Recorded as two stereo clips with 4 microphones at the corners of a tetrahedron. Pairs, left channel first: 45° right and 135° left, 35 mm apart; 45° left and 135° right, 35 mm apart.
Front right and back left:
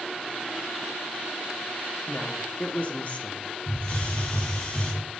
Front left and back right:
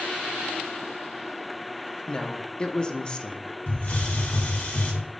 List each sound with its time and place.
2.1 s a woman speaking: 10° right, 0.9 m
3.7 s a hiss: 10° left, 1.8 m